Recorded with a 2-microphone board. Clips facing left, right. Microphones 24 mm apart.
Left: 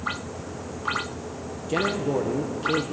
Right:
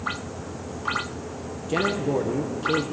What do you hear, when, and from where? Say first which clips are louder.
1.7 s a man speaking: right 1 dB; centre (ahead or behind), 0.9 m